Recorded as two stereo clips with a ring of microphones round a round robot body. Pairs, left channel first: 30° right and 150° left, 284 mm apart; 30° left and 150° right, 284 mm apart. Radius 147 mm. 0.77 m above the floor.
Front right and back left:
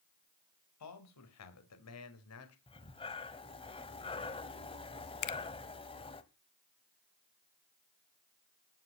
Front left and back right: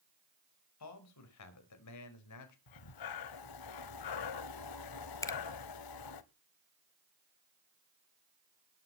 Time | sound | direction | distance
0.8 | a man speaking | straight ahead | 4.5 m
2.7 | breathing | 40° left | 1.3 m
5.2 | a finger snap | 50° right | 1.5 m